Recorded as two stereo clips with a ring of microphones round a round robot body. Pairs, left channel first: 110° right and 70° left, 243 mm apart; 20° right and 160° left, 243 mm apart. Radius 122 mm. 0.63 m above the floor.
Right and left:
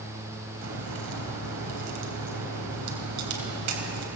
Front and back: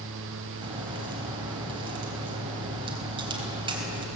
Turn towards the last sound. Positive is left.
turn(degrees=85)